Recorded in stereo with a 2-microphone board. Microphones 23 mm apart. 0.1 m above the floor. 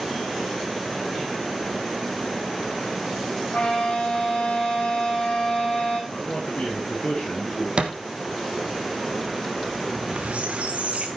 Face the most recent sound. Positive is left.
turn(degrees=-75)  # may be behind; listen again after turning